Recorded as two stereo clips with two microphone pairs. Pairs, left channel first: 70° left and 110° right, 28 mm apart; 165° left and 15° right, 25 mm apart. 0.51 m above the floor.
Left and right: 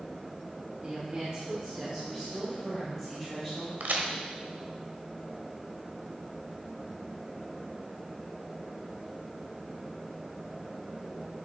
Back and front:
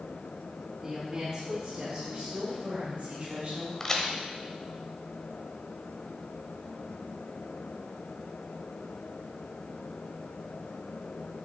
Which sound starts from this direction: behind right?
A crack, at 3.8 s.